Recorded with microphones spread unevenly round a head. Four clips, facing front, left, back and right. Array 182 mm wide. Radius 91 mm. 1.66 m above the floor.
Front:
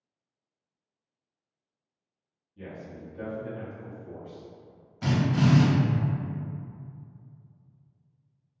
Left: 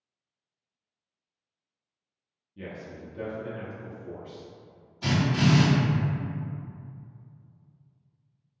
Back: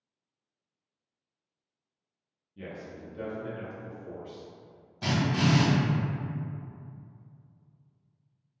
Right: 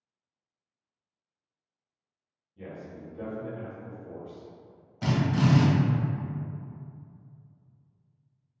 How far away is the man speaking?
About 0.9 m.